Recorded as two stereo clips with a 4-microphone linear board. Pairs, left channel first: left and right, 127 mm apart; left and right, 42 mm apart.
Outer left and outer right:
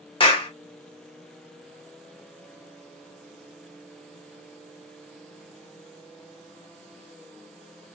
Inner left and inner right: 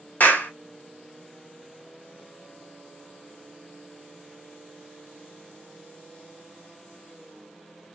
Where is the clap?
40° left (ahead or behind), 1.1 m.